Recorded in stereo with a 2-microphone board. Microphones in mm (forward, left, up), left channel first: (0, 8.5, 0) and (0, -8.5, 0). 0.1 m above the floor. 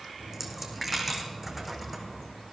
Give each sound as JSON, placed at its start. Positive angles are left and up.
{"t": 0.2, "sound": "a dropped coin", "side_deg": -10, "distance_m": 2.0}